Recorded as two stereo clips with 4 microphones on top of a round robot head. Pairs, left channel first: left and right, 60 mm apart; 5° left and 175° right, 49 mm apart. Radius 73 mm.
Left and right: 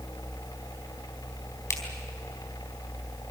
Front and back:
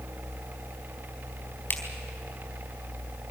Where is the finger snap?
50° left, 4 m.